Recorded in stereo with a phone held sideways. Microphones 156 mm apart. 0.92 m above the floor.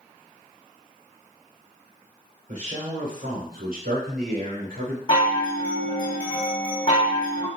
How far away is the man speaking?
About 4 m.